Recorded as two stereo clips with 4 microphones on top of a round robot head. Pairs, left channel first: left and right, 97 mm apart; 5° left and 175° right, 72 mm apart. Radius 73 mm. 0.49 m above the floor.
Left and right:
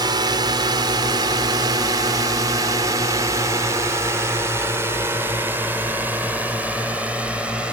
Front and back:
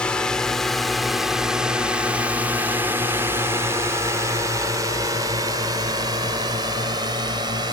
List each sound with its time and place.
0.0 s a drone: 70° right; by 7.7 s 170° right